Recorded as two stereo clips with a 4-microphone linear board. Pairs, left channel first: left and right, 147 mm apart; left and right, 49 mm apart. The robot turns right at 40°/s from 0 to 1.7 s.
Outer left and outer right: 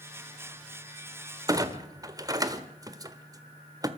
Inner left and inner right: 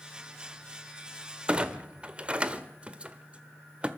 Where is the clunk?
25° right (ahead or behind), 1.3 m.